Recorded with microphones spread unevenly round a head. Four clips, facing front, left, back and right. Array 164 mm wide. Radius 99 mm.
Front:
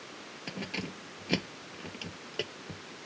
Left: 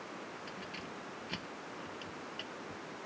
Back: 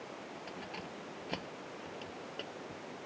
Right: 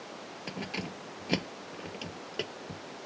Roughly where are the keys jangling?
Ahead right.